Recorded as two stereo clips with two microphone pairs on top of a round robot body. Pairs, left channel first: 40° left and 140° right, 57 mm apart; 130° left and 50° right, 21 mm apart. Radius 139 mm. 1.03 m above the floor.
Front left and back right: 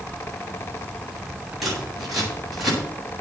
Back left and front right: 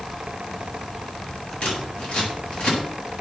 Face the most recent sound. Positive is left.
turn(degrees=130)